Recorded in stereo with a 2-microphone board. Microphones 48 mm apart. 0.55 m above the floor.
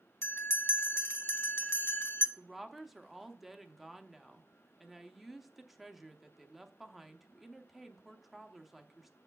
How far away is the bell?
About 0.9 m.